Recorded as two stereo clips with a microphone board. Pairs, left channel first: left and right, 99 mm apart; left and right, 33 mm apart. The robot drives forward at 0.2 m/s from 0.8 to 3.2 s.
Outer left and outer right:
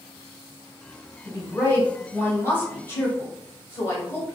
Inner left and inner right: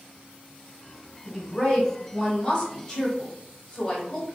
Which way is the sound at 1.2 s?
20° left (ahead or behind).